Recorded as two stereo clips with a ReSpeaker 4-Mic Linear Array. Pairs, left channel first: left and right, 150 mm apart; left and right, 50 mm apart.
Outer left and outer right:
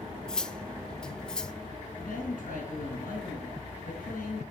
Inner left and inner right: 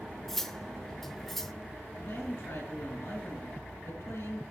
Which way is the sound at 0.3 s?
5° left (ahead or behind).